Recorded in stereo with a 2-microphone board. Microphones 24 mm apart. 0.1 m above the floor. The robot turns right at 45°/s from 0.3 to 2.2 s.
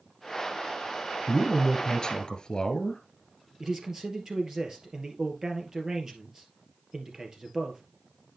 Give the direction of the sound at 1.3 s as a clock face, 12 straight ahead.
11 o'clock.